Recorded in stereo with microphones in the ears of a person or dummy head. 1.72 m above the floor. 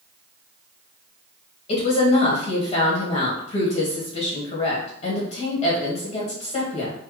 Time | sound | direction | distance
1.7 | a woman speaking | 45° left (ahead or behind) | 1.5 m